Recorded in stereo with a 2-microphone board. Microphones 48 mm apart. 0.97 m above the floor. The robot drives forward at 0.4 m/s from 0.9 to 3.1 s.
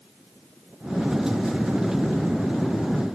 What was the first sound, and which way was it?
Only background noise.